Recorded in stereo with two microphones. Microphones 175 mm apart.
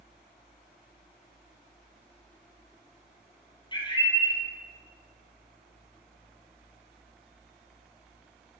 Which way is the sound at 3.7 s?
25° left (ahead or behind).